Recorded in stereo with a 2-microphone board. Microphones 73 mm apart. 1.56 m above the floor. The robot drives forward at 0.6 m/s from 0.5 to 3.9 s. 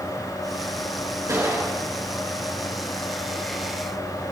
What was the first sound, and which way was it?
A gunshot, 40° right (ahead or behind).